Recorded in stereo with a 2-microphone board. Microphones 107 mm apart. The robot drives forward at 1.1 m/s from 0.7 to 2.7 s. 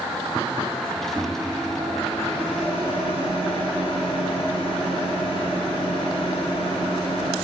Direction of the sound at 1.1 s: 55° left (ahead or behind).